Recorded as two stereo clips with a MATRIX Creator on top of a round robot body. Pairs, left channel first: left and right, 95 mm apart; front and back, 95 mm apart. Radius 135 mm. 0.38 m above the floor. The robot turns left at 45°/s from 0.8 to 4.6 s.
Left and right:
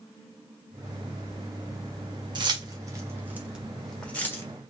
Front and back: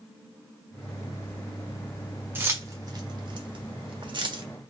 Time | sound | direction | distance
2.4 | keys jangling | 115° right | 1.3 m